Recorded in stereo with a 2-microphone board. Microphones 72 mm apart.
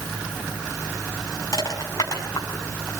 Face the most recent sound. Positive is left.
turn(degrees=45)  # may be behind; listen again after turning